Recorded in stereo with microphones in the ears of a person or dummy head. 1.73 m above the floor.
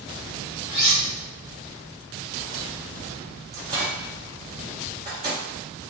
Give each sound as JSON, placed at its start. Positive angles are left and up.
{"t": 0.7, "sound": "cutlery clinking", "side_deg": 50, "distance_m": 1.2}
{"t": 3.5, "sound": "a microwave", "side_deg": -30, "distance_m": 0.8}